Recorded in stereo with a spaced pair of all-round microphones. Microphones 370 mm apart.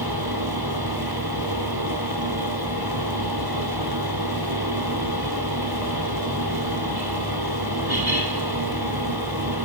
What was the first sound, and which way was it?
A fan, 80° right.